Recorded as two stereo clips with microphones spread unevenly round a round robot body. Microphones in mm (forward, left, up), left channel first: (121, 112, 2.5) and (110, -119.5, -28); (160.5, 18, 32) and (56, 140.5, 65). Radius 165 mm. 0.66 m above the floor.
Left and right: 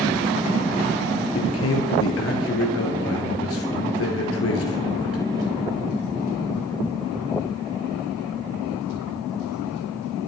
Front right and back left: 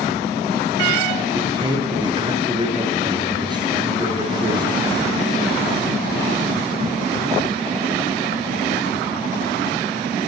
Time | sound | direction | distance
1.4 | a man speaking | 65° left | 10 m